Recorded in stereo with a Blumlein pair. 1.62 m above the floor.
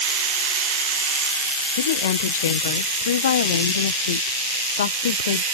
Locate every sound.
1.8 s a woman speaking: 65° left